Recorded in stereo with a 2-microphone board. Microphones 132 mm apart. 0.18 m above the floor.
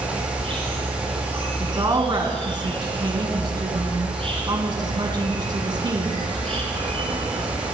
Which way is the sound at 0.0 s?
45° right (ahead or behind).